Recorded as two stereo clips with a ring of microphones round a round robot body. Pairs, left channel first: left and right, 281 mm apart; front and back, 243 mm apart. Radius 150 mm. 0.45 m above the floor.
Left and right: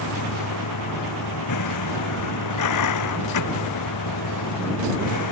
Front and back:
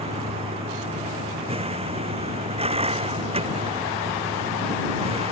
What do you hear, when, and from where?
0.0 s a vehicle: 115° left